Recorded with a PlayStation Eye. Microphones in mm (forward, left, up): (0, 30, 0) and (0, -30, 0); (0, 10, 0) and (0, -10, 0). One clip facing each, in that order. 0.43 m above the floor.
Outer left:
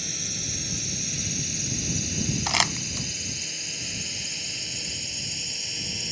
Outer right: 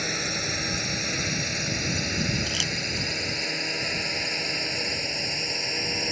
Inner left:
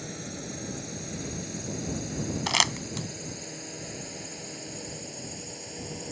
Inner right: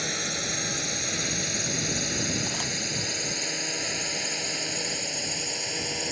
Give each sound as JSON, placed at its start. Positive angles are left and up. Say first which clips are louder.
{"t": 0.0, "sound": "a drone", "louder": "outer right 8 dB, inner right 10 dB", "side_deg": -55}
{"t": 2.5, "sound": "crumpling", "louder": "outer left 3 dB, inner left 3 dB", "side_deg": 70}